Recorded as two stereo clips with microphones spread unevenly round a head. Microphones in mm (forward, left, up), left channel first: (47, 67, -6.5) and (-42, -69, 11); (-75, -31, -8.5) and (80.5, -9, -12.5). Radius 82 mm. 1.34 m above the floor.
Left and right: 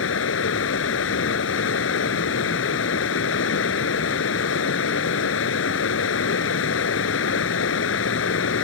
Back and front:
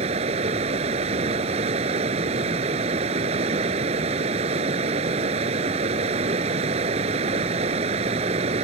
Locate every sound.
0.0 s running water: 65° left